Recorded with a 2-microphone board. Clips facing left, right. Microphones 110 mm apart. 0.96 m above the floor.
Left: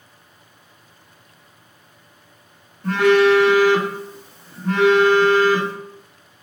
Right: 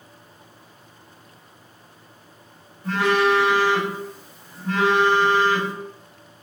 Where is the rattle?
I don't hear a rattle.